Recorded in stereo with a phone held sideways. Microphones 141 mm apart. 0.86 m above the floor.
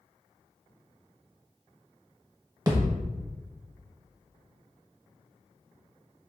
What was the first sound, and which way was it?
A thud, 30° right (ahead or behind).